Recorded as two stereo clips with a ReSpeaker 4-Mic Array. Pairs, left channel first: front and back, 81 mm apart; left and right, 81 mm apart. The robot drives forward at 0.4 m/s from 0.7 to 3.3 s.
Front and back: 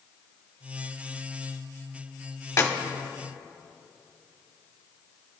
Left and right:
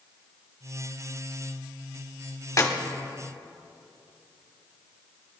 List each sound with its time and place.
2.6 s a clap: 45° left, 1.3 m; by 2.7 s 50° left, 1.2 m